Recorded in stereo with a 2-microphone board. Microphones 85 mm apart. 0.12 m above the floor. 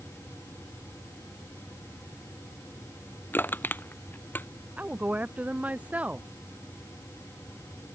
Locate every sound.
3.3 s crushing: 25° left (ahead or behind)
4.8 s a woman speaking: 15° right (ahead or behind)